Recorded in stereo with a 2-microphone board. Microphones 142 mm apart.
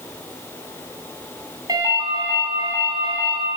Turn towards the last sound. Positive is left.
turn(degrees=-30)  # may be behind; listen again after turning